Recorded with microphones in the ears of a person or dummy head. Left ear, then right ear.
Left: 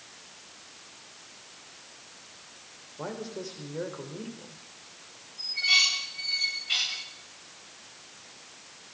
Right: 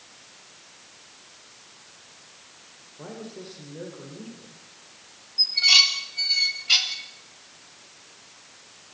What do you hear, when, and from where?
3.0 s a man speaking: 35° left (ahead or behind), 5 m
5.4 s dishes clattering: 35° right (ahead or behind), 3.5 m